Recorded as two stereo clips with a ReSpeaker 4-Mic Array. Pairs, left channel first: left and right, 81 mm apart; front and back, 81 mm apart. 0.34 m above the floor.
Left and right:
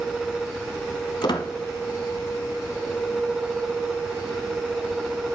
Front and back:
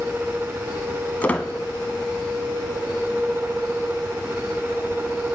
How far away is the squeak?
About 0.6 m.